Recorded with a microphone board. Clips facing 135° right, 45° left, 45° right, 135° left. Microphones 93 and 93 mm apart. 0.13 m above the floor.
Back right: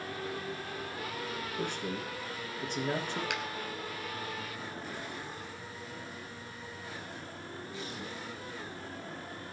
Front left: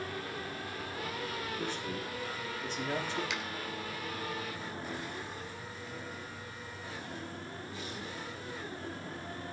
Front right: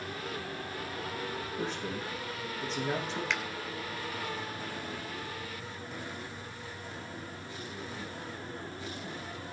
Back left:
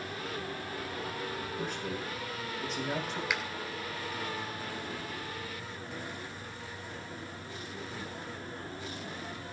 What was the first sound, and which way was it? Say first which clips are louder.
A man speaking: back right 1 dB, front right 2 dB; 105° right.